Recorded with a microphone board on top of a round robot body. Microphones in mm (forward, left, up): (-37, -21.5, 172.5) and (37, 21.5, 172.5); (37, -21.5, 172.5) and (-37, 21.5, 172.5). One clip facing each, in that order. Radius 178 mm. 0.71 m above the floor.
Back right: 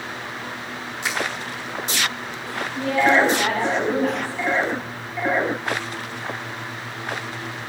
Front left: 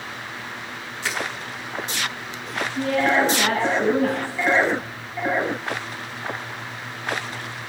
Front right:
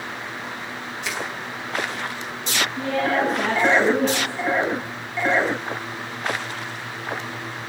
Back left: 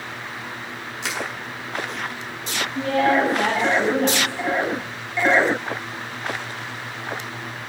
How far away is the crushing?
About 9 m.